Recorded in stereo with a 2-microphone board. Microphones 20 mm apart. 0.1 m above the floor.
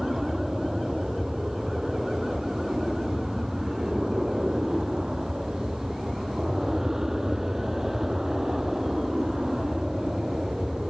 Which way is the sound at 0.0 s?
25° right (ahead or behind).